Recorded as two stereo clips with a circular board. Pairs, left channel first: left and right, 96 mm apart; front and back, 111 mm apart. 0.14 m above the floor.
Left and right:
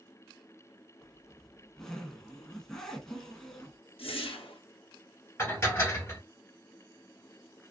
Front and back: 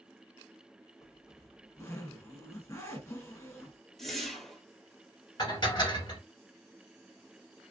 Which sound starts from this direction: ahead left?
Dishes clattering, at 5.4 s.